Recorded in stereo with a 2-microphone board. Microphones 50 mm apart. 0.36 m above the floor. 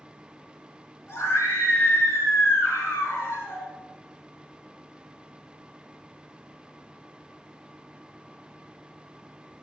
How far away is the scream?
About 5.5 m.